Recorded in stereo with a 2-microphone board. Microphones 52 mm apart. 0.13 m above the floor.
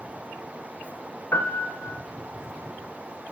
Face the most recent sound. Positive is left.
turn(degrees=50)  # may be behind; listen again after turning